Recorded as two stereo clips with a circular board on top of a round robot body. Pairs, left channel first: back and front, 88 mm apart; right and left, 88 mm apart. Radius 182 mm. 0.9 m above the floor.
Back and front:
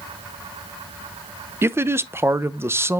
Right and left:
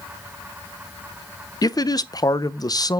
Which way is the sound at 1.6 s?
55° right.